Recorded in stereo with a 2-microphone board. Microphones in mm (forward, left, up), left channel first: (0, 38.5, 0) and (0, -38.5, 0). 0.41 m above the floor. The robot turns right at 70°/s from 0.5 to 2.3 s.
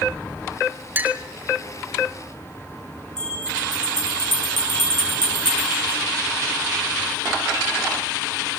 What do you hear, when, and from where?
0.9 s a clink: 25° right (ahead or behind), 1.5 m; by 1.2 s 15° right (ahead or behind), 1.5 m
3.2 s a bell: 70° right (ahead or behind), 7 m